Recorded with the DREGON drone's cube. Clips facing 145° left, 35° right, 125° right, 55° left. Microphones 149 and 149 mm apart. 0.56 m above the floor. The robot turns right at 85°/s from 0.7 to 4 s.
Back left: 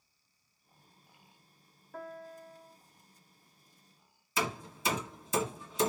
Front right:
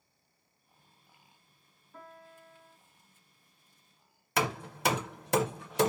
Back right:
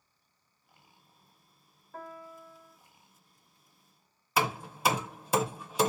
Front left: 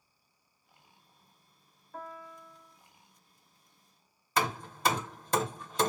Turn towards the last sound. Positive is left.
turn(degrees=-45)